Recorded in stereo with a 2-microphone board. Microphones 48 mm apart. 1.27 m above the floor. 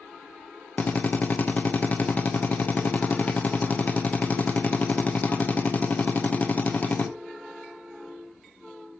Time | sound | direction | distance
0.8 | a drill | 35° left (ahead or behind) | 1.1 m